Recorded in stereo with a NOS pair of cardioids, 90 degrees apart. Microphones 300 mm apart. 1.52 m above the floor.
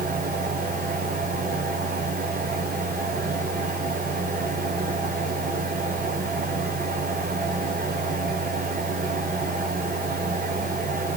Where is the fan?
30° right, 3.5 m.